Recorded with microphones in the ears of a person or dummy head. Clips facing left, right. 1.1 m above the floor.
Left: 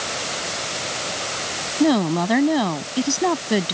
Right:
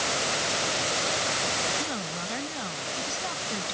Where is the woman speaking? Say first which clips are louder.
Left 17 dB; 85° left.